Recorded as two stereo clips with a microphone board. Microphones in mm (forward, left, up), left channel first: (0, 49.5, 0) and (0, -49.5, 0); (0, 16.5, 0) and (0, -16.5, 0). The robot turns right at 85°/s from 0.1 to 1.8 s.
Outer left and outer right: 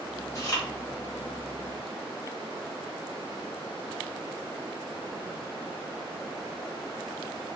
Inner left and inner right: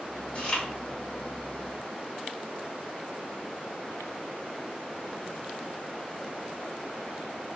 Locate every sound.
0.3 s chewing: 40° left (ahead or behind), 1.5 m; by 0.7 s 25° left (ahead or behind), 1.5 m